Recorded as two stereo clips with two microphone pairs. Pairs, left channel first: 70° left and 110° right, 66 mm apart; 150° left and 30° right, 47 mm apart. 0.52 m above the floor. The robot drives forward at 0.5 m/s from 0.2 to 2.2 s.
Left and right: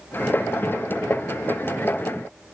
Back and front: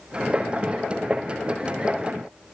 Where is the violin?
No violin in this recording.